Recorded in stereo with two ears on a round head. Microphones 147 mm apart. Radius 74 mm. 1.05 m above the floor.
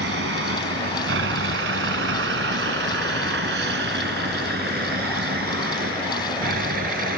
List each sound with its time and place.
0.0 s a vehicle: 85° right; by 7.2 s 55° right (ahead or behind)